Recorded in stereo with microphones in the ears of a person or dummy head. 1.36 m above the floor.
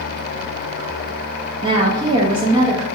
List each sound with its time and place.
1.6 s a woman speaking: 30° right (ahead or behind), 0.6 m